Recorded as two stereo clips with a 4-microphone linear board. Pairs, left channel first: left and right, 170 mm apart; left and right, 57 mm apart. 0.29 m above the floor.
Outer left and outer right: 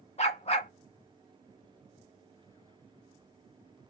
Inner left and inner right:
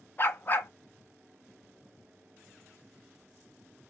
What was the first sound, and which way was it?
A dog barking, 40° left (ahead or behind).